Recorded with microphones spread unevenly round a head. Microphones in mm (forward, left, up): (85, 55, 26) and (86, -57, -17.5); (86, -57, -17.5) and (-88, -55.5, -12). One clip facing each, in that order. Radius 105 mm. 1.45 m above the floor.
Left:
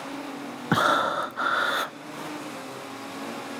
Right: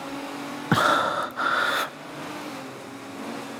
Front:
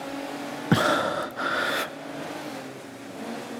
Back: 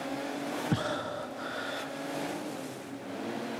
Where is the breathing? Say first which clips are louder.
Right 1 dB, front 14 dB; 15° left, 0.5 m.